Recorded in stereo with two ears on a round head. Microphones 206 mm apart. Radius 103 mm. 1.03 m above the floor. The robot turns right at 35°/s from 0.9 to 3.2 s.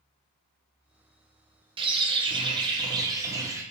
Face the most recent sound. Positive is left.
turn(degrees=-15)  # may be behind; listen again after turning